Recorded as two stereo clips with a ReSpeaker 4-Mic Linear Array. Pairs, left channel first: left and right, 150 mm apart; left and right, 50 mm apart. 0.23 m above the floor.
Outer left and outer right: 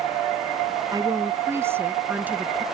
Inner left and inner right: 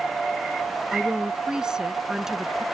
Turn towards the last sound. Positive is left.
turn(degrees=-10)  # may be behind; listen again after turning